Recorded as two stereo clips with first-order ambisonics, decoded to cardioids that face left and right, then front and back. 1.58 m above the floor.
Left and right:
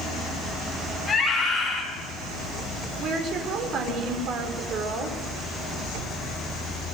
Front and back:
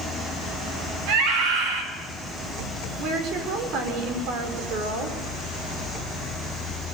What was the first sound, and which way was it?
A scream, 170° left.